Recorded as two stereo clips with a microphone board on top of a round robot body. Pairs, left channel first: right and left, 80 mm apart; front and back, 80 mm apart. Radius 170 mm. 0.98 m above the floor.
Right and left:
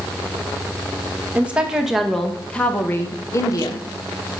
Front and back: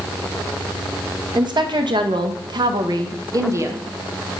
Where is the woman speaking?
165° left, 2 m; by 4.4 s 110° right, 2 m.